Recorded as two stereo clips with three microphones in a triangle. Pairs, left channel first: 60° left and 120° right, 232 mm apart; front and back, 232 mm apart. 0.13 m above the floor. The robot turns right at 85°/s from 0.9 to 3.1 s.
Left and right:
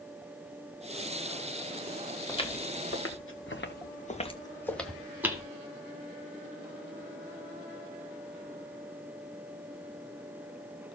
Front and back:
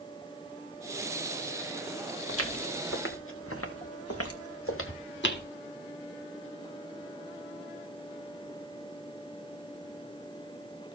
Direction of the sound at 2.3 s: 15° right.